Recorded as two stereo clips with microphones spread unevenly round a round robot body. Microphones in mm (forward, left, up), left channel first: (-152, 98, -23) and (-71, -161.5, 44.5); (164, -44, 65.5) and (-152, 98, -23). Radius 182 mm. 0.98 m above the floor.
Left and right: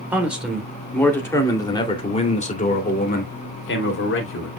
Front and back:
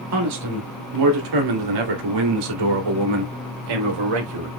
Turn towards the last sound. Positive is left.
turn(degrees=145)